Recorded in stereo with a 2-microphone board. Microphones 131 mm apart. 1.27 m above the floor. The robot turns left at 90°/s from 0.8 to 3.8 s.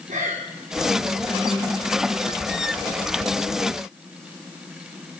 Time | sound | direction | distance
0.1 | breathing | 85° right | 3 m